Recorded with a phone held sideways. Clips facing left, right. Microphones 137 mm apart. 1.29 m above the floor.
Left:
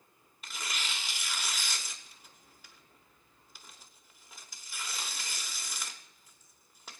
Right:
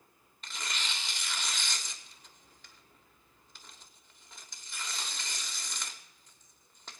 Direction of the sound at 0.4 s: 5° left (ahead or behind).